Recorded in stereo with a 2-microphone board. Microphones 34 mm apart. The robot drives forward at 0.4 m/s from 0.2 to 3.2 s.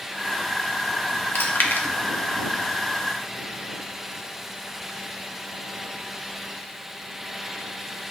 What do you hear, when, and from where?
1.4 s chewing: 60° left (ahead or behind), 0.6 m; by 1.9 s 65° left (ahead or behind), 0.6 m